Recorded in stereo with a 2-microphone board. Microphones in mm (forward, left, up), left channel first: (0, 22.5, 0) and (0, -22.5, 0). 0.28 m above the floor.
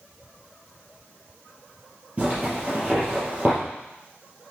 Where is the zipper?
30° right (ahead or behind), 3.5 m.